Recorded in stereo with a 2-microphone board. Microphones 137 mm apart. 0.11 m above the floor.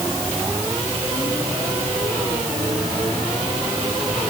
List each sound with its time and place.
Only background noise.